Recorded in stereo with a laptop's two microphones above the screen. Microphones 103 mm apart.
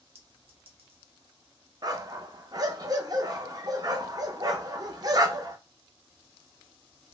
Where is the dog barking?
40° right (ahead or behind), 0.5 m.